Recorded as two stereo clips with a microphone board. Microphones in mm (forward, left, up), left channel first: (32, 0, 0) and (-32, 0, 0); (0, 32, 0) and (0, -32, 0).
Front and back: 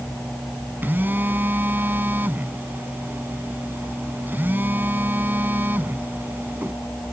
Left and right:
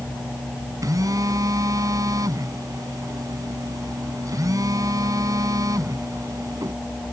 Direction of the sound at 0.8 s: 120° right.